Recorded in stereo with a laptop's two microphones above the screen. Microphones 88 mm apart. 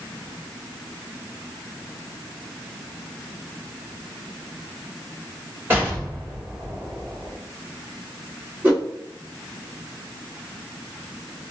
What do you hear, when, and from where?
5.7 s an explosion: 30° right (ahead or behind), 1.7 m
8.6 s a whoosh: 25° right (ahead or behind), 1.6 m